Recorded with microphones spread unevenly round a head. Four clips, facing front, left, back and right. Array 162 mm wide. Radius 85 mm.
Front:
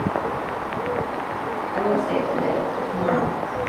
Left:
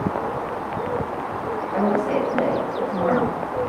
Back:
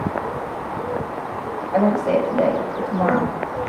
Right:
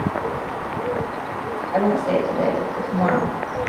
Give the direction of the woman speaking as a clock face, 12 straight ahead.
5 o'clock.